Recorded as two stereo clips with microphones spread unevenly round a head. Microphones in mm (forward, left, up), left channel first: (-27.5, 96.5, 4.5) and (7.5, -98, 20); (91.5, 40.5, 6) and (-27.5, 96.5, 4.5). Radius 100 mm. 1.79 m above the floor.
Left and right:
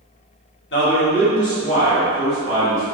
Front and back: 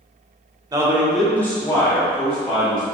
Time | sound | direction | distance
0.7 | a man speaking | 105° left | 0.7 m